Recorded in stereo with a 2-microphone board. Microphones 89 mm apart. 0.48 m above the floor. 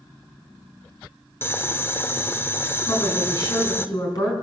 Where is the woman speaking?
45° left (ahead or behind), 4.5 m.